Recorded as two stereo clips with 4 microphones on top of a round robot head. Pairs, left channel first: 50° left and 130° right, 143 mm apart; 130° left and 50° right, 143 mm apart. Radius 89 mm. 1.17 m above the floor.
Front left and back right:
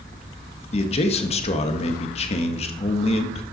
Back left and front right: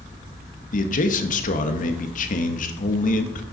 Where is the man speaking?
100° left, 1.4 m.